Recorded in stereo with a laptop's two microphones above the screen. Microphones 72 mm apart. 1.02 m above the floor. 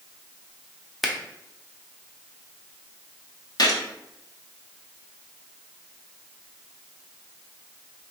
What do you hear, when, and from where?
1.0 s a finger snap: 5° right (ahead or behind), 0.6 m
3.6 s a gunshot: 55° left (ahead or behind), 0.7 m